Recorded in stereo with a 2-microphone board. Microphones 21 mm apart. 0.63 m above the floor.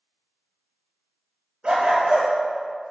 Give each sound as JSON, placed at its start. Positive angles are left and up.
{"t": 1.6, "sound": "a dog barking", "side_deg": -45, "distance_m": 2.0}